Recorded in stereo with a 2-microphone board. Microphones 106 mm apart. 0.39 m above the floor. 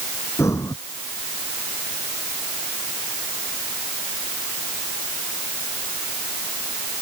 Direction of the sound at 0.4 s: 25° left (ahead or behind).